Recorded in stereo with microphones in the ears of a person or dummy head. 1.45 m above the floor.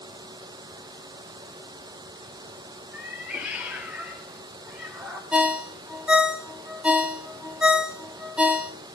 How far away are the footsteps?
No footsteps in this recording.